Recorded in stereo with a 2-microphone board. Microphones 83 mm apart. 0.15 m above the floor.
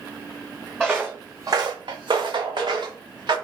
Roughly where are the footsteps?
Centre.